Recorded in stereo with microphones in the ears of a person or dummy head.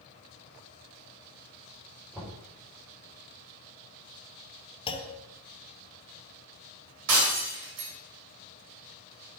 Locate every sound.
2.1 s knocking: 10° right (ahead or behind), 5 m
4.9 s a clunk: 30° left (ahead or behind), 1.2 m
7.1 s breaking glass: 70° right (ahead or behind), 3.5 m